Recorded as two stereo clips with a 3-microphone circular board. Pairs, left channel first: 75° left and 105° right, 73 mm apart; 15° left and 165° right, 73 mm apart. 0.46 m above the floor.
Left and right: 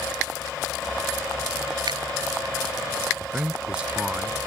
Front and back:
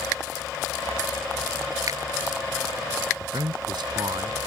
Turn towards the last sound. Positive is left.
turn(degrees=180)